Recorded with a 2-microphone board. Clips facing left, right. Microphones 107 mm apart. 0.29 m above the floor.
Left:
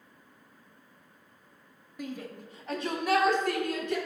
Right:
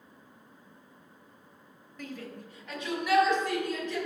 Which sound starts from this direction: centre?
A shout, at 2.0 s.